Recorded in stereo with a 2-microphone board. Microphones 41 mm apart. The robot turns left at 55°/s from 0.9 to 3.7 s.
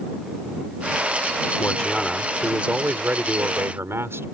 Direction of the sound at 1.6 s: 30° left.